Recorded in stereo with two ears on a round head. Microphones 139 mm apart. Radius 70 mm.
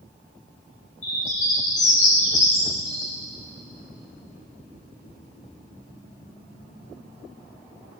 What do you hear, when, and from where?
1.0 s a bird: 45° left (ahead or behind), 6 m